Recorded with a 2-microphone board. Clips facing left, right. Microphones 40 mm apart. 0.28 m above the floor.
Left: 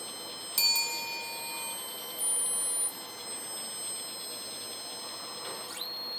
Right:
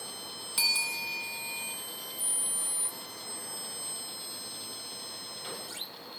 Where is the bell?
15° right (ahead or behind), 1.6 m.